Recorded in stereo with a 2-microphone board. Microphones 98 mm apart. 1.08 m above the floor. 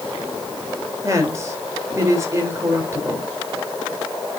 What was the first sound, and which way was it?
A woman speaking, 30° right (ahead or behind).